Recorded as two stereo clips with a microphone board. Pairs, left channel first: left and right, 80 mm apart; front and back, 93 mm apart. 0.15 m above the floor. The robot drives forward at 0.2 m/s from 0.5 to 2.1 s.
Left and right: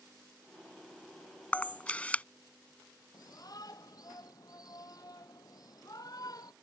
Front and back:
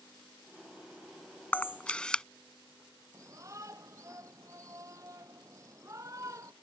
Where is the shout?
125° left.